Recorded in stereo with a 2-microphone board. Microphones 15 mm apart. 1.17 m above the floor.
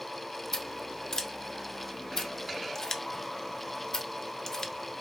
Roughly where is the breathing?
No breathing in this recording.